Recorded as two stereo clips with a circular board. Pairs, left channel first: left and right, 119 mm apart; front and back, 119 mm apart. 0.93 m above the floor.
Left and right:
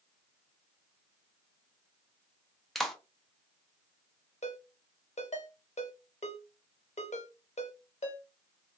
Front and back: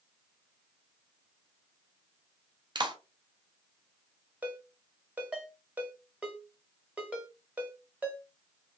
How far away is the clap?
About 0.5 m.